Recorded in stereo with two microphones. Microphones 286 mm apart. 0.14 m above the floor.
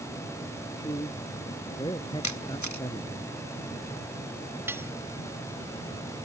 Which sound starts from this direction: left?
A camera shutter, at 2.2 s.